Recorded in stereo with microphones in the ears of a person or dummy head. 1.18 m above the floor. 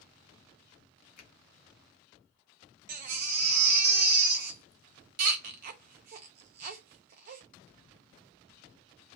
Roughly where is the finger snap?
Left.